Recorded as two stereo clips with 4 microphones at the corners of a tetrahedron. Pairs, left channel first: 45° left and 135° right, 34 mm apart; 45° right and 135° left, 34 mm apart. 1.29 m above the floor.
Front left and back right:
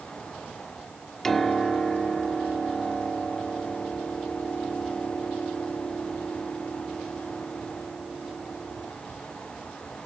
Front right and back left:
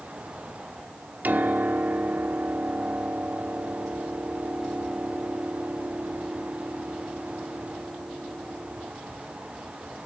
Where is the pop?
No pop in this recording.